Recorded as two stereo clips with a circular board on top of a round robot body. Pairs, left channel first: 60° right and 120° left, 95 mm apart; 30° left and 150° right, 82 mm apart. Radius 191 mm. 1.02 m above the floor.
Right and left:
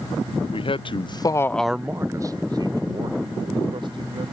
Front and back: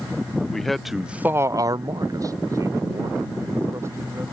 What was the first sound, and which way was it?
A man speaking, 55° right.